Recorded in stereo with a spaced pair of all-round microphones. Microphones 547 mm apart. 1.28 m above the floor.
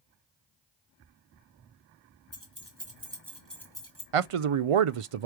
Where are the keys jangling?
25° right (ahead or behind), 2.0 m; by 4.0 s 10° left (ahead or behind), 2.5 m.